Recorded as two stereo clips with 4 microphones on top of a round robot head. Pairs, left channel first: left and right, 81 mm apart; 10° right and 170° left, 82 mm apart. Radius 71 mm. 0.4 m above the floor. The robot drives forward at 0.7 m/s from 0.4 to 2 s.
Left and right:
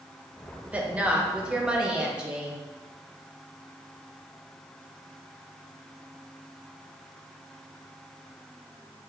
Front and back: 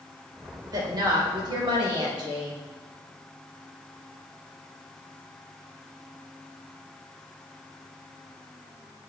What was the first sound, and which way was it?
A woman speaking, 160° right.